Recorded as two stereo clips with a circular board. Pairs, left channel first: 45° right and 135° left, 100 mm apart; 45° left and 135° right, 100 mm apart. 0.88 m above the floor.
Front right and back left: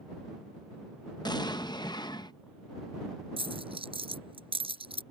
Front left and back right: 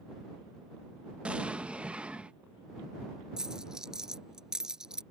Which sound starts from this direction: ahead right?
An explosion, at 1.2 s.